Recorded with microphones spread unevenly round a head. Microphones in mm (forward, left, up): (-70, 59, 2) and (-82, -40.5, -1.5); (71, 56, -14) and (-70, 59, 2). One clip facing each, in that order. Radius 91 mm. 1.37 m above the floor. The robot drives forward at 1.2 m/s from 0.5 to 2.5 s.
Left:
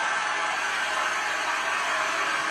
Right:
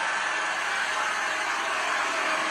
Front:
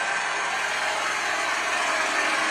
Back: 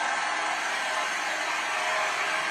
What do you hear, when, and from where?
0.0 s an engine running: 15° right, 4 m; by 2.5 s 35° right, 1.8 m